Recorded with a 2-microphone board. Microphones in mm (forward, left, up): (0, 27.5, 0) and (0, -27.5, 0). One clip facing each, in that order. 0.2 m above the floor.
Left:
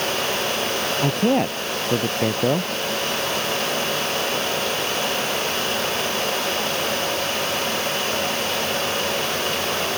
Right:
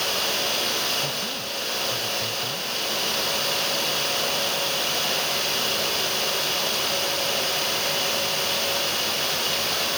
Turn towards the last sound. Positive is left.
turn(degrees=60)  # may be behind; listen again after turning